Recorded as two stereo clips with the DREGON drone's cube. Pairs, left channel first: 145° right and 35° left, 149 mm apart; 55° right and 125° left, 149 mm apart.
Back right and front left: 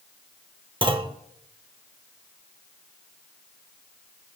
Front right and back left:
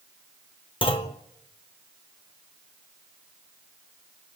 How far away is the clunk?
About 0.9 m.